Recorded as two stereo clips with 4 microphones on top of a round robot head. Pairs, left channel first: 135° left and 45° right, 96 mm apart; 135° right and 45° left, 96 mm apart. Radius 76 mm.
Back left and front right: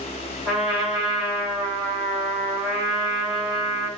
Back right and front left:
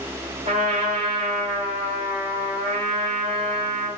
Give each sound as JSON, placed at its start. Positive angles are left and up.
{"t": 0.5, "sound": "a trumpet", "azimuth_deg": 35, "distance_m": 1.6}